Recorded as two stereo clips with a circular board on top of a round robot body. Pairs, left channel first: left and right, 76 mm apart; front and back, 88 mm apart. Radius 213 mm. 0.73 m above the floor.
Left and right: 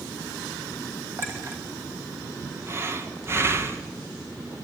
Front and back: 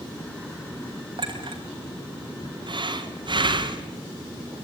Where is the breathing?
150° right, 1.5 m.